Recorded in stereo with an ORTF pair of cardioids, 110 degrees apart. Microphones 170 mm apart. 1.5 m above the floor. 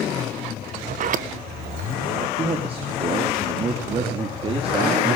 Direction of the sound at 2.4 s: 35° right.